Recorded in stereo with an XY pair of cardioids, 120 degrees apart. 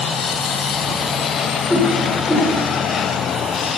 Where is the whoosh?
5° right, 5.5 m.